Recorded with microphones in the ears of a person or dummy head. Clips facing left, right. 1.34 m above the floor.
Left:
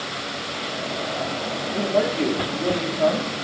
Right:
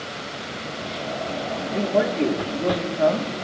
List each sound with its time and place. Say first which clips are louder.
1.7 s a man speaking: even; 10° right (ahead or behind), 1.7 m